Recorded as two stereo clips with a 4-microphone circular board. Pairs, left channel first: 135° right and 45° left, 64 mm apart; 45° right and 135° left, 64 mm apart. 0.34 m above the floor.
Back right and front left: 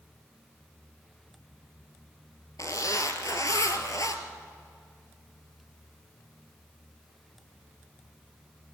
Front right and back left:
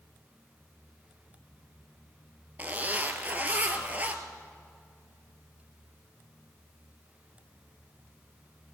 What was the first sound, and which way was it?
A zipper, 165° right.